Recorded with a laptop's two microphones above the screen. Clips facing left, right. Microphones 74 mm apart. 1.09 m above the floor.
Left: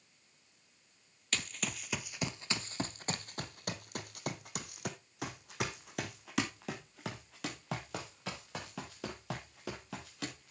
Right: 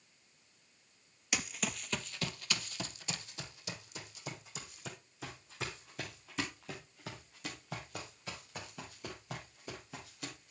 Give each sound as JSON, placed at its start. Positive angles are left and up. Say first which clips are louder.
{"t": 1.3, "sound": "running footsteps", "louder": "right 1 dB", "side_deg": -10, "distance_m": 1.2}